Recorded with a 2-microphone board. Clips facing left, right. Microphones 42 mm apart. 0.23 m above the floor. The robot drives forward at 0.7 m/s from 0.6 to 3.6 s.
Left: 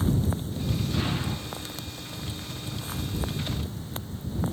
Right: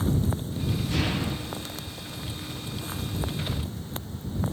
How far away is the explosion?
About 6 m.